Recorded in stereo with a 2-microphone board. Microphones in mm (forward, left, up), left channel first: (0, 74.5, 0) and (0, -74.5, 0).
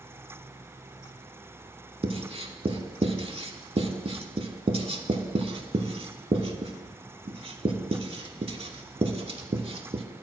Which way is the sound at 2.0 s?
40° right (ahead or behind).